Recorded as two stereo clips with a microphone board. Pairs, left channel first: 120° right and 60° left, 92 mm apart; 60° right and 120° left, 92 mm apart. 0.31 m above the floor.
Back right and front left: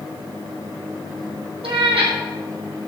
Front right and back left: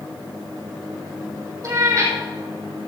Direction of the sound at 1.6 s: 65° left.